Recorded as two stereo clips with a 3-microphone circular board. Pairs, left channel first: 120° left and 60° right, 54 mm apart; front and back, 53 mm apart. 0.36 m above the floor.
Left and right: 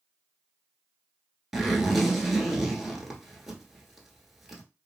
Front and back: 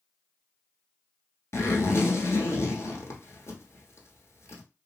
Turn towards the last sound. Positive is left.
turn(degrees=25)